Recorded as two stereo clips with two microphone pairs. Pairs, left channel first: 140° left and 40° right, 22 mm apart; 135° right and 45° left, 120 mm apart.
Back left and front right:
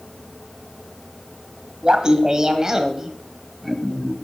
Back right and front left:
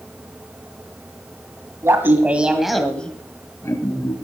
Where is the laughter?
10° right, 1.5 m; by 4.1 s 120° right, 1.4 m.